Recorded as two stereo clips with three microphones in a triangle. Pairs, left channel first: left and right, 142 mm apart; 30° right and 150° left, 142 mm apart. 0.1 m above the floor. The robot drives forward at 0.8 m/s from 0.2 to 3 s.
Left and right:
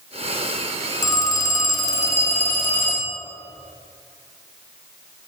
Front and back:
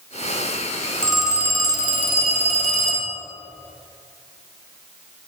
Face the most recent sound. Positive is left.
turn(degrees=165)